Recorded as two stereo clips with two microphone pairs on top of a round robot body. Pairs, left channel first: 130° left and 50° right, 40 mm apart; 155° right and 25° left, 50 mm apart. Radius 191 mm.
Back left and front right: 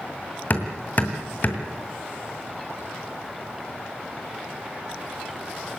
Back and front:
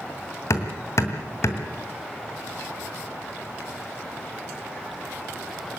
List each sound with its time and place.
0.5 s hammering: 175° left, 2 m